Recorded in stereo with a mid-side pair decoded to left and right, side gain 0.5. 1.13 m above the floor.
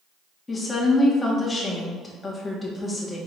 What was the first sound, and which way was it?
A woman speaking, 20° left.